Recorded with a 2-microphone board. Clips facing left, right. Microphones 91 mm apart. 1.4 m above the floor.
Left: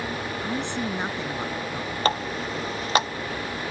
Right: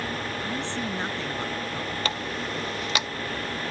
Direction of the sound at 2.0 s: 40° left (ahead or behind).